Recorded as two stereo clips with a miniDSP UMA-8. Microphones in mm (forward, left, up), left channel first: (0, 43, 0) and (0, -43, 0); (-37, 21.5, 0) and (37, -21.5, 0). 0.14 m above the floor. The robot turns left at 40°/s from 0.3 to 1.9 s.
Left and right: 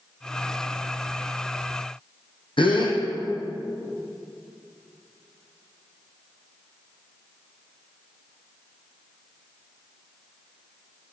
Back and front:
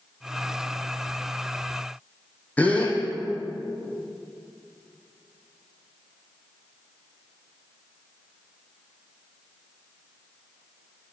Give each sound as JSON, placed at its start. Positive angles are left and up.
{"t": 2.6, "sound": "a gasp", "azimuth_deg": 75, "distance_m": 2.0}